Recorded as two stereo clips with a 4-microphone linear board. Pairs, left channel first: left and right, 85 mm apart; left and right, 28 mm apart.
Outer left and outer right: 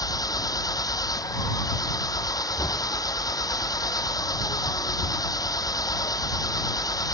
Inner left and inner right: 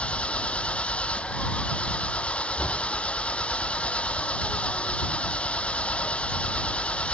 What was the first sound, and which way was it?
An engine running, 45° left (ahead or behind).